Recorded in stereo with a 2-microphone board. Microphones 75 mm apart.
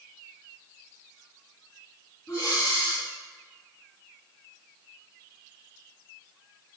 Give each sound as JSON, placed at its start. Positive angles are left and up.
{"t": 2.3, "sound": "breathing", "side_deg": 40, "distance_m": 1.9}